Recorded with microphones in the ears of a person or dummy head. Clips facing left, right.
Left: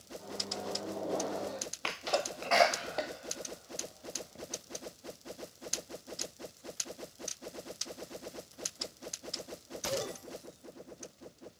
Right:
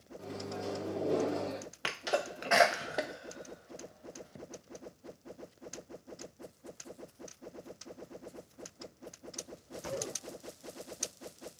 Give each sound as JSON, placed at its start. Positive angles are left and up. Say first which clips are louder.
{"t": 0.2, "sound": "a microwave", "louder": "right 3 dB", "side_deg": -35, "distance_m": 0.6}
{"t": 1.8, "sound": "a sneeze", "louder": "even", "side_deg": -15, "distance_m": 0.5}